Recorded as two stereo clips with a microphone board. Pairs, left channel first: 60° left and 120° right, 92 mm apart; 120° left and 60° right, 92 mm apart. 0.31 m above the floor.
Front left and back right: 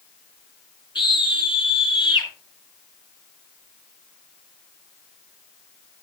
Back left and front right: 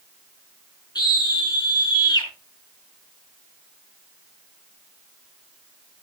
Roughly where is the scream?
Left.